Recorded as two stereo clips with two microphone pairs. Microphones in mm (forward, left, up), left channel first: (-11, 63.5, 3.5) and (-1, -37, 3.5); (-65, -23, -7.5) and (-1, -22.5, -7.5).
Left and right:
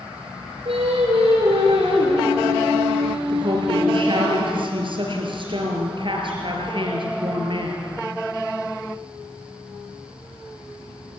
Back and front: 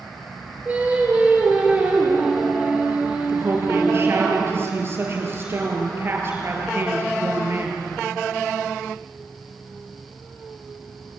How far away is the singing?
About 5.5 m.